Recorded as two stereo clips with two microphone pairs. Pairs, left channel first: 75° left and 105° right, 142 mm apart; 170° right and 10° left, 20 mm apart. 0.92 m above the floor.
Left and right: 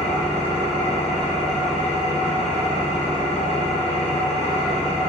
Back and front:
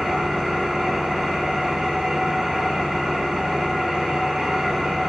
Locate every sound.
0.0 s an engine running: 30° left, 0.8 m